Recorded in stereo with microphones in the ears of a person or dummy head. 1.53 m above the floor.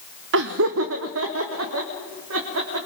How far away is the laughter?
About 0.7 m.